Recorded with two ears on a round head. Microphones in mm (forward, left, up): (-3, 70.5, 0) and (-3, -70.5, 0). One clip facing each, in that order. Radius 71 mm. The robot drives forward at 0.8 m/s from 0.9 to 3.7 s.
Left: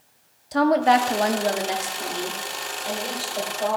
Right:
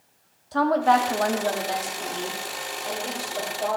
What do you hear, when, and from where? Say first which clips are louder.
0.5 s a woman speaking: left 2 dB; 20° left (ahead or behind), 0.6 m; by 3.8 s 5° left (ahead or behind), 2 m